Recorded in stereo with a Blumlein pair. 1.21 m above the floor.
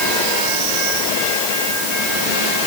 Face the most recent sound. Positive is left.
No sound to turn to.